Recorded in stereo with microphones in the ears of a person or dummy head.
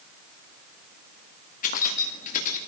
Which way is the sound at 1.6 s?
45° left (ahead or behind).